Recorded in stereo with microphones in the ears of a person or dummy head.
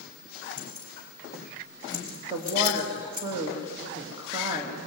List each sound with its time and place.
0.6 s keys jangling: 25° right (ahead or behind), 6.5 m; by 3.3 s 45° right (ahead or behind), 4 m
2.3 s a woman speaking: 10° right (ahead or behind), 3 m